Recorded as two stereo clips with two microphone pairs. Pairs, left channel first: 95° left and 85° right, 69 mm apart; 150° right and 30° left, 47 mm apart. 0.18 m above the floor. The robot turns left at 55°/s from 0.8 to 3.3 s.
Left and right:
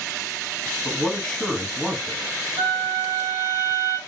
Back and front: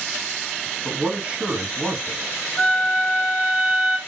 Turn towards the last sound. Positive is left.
turn(degrees=-135)